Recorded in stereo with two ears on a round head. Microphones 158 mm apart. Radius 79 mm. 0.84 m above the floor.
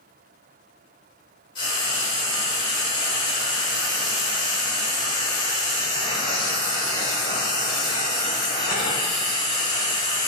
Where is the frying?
25° left (ahead or behind), 1.8 m.